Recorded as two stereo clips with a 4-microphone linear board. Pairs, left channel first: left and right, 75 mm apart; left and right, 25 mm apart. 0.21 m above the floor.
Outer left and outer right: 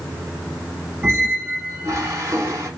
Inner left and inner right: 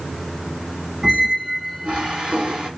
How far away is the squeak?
About 1.0 m.